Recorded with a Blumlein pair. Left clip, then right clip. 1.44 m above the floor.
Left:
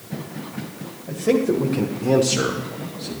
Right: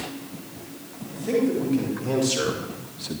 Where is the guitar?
No guitar in this recording.